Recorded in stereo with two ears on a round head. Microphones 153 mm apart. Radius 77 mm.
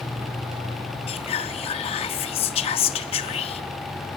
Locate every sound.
1.1 s whispering: 35° left (ahead or behind), 0.6 m